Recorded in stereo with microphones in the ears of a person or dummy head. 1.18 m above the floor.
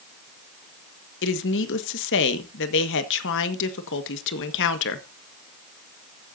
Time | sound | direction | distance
1.2 | a woman speaking | 65° left (ahead or behind) | 1.5 m